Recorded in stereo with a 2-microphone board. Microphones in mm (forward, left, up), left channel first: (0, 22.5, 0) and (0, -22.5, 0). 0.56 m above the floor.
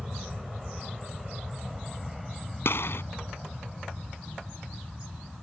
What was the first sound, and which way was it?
An aircraft, 10° right (ahead or behind).